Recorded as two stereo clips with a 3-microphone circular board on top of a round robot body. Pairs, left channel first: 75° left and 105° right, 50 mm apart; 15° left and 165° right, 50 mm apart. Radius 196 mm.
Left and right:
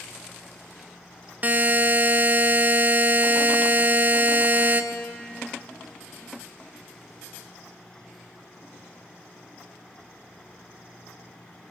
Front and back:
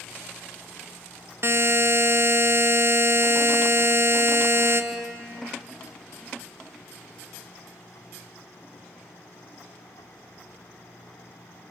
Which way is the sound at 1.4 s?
155° right.